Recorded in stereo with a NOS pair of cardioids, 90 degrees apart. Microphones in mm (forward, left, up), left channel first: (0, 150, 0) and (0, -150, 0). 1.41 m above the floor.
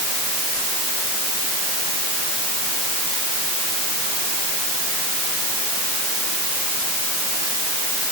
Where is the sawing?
I don't hear sawing.